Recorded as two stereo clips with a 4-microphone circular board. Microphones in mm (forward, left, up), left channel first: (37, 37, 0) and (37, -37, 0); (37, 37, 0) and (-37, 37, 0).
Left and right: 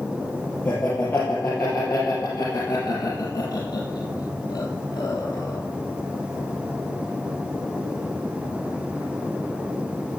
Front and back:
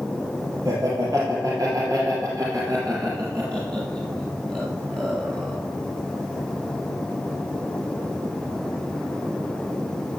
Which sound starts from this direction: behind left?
Laughter, at 0.7 s.